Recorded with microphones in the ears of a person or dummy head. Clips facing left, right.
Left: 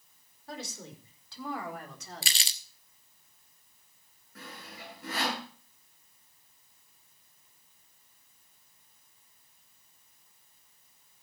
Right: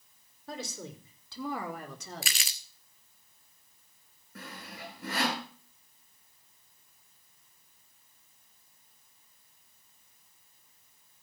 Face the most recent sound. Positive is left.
turn(degrees=-55)  # may be behind; listen again after turning